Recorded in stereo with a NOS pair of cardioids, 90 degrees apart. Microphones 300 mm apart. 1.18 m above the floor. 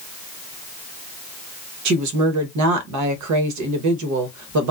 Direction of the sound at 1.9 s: 70° right.